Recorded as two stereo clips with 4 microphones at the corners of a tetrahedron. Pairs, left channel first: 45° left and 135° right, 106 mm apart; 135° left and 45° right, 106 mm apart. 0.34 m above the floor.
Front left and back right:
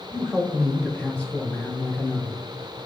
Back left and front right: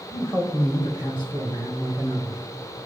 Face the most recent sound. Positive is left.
turn(degrees=110)